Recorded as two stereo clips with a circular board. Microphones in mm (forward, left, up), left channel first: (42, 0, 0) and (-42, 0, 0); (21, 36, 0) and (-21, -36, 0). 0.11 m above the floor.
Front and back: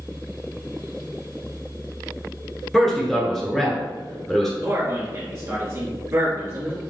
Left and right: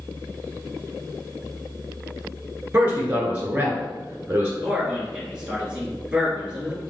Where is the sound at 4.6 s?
170° left, 1.6 m.